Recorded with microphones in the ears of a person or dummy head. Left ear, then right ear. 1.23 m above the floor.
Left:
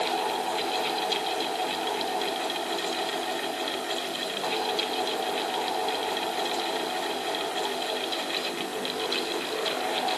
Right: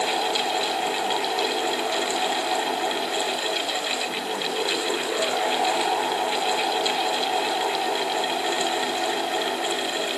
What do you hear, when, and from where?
Only background noise.